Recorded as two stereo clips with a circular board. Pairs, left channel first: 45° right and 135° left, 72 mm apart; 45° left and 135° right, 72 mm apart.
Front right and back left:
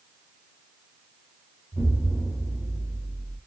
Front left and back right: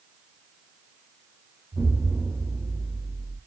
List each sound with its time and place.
1.7 s an explosion: 50° right, 2 m